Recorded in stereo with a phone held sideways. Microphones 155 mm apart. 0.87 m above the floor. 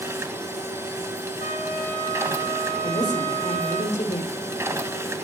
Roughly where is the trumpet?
Left.